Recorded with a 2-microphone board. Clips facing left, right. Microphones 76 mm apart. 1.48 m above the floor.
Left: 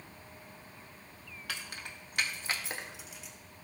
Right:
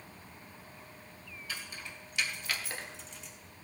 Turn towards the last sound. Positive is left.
turn(degrees=5)  # may be behind; listen again after turning